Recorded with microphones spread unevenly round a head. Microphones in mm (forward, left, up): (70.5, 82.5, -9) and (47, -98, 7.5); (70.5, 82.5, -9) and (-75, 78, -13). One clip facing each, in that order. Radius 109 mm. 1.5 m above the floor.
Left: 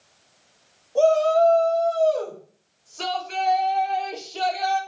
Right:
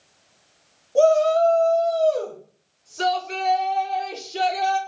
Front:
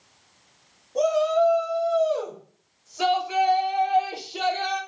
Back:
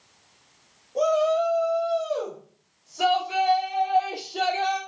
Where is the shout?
65° right, 4 m; by 4.8 s 85° right, 5.5 m.